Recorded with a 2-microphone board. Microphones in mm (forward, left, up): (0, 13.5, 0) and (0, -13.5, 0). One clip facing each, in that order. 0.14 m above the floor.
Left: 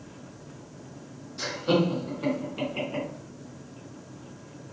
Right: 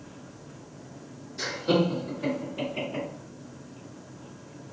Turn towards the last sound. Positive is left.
turn(degrees=30)  # may be behind; listen again after turning